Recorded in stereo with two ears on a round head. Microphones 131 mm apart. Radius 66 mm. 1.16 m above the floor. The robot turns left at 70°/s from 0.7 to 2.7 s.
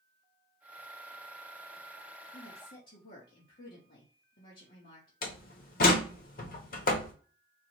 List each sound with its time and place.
2.3 s a woman speaking: 90° left, 1.4 m; by 5.1 s 65° left (ahead or behind), 1.4 m
5.2 s a door slam: 60° left (ahead or behind), 1.0 m